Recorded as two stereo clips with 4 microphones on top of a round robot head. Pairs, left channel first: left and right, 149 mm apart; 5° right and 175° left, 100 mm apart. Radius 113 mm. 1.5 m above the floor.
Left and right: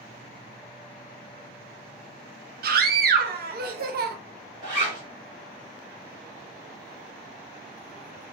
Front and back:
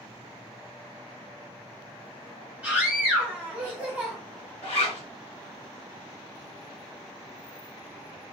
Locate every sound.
2.6 s a scream: 105° right, 0.6 m
4.6 s a zipper: 35° right, 1.3 m